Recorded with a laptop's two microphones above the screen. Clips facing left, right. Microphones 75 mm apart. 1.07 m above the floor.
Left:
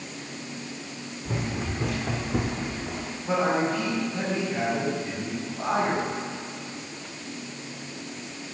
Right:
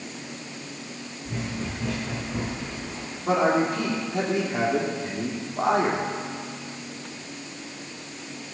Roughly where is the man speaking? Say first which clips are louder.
Right 3 dB; right.